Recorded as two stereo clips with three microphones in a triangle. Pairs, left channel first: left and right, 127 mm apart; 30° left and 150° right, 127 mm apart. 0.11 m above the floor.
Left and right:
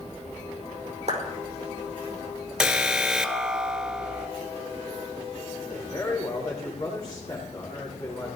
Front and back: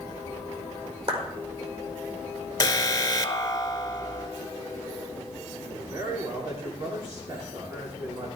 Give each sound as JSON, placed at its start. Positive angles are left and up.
{"t": 1.1, "sound": "a clap", "azimuth_deg": -115, "distance_m": 4.5}
{"t": 2.6, "sound": "an alarm", "azimuth_deg": -5, "distance_m": 0.9}
{"t": 5.6, "sound": "a man speaking", "azimuth_deg": 150, "distance_m": 7.5}